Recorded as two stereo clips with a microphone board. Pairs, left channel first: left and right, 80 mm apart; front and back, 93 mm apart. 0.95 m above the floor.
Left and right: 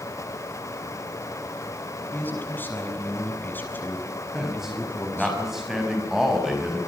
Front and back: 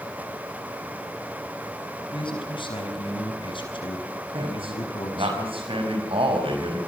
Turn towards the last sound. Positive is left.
turn(degrees=-175)